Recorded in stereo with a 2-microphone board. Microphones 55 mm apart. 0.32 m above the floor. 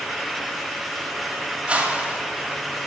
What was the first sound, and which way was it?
A whoosh, 20° right (ahead or behind).